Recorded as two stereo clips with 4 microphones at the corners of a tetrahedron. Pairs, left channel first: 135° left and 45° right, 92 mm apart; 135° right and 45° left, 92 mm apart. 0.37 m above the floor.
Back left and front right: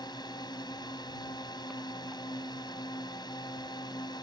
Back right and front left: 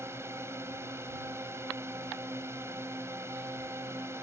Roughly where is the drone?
Left.